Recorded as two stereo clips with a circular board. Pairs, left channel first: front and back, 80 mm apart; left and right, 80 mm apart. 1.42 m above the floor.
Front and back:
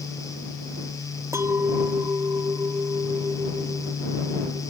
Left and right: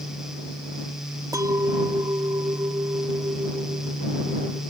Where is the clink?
130° right.